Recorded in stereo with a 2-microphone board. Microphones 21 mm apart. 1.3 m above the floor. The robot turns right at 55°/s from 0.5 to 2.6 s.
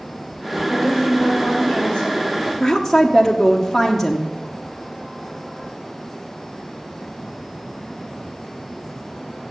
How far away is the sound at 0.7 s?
About 6 m.